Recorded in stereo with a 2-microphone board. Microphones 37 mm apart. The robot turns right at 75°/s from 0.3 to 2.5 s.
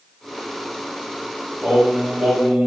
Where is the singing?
155° right, 1.9 m; by 2.7 s 90° right, 1.9 m.